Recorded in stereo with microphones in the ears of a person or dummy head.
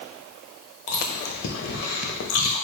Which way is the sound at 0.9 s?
55° left (ahead or behind).